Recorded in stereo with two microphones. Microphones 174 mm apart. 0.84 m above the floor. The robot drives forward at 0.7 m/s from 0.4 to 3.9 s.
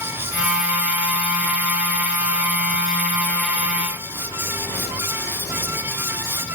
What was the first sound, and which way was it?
Only background noise.